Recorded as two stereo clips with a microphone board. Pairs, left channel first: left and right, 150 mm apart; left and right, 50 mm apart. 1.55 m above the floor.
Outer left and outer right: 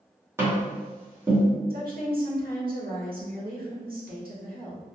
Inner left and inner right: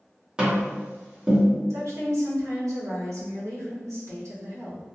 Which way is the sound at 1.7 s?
75° right (ahead or behind).